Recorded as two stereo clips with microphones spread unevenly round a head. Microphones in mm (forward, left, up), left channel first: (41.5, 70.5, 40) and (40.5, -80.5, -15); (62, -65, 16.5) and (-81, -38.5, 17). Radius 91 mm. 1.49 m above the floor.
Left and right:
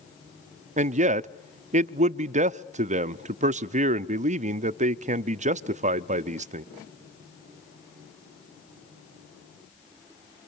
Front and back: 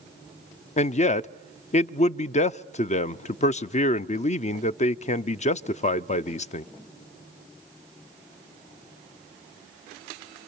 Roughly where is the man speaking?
Ahead right.